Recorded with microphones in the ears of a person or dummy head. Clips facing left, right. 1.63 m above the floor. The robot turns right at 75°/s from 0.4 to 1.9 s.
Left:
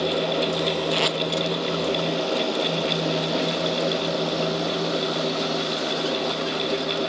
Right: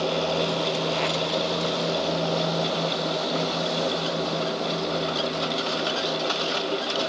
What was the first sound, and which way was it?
Tape being pulled, 40° left (ahead or behind).